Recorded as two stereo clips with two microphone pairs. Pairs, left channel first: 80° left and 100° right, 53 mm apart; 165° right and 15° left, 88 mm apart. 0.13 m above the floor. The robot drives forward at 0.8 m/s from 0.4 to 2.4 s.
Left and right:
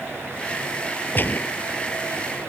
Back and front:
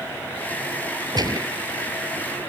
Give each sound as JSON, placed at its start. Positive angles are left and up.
{"t": 1.1, "sound": "a gunshot", "azimuth_deg": 35}